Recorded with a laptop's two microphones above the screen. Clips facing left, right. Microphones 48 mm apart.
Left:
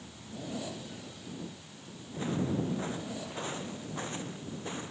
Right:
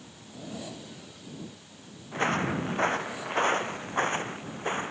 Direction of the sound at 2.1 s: 70° right (ahead or behind).